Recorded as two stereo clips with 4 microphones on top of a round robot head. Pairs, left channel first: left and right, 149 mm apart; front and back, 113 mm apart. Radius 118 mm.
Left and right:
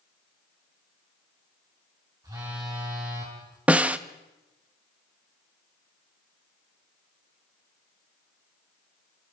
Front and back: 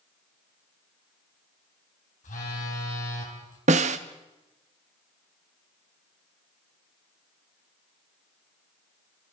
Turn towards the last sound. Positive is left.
turn(degrees=-170)